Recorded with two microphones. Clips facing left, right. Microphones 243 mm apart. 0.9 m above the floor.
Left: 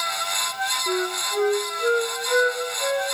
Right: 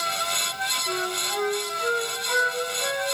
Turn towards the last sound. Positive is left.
turn(degrees=35)  # may be behind; listen again after turning